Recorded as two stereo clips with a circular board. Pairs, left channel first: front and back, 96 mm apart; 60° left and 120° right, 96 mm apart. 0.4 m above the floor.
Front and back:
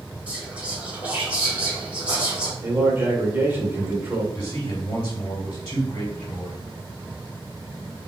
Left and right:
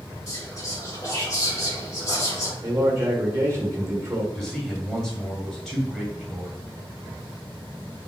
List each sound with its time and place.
0.3 s whispering: 105° left, 1.4 m
2.6 s a man speaking: 140° right, 0.9 m
4.3 s a man speaking: 30° right, 1.1 m